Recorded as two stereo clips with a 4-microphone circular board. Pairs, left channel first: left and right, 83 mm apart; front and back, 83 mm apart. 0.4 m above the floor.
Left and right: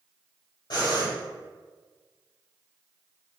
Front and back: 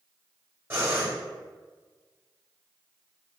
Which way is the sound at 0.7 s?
120° left.